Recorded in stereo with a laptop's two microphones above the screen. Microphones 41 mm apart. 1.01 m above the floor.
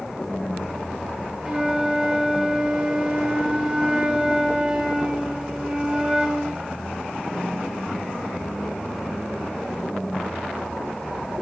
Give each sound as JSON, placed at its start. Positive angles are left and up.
{"t": 1.4, "sound": "a flute", "side_deg": -10, "distance_m": 1.5}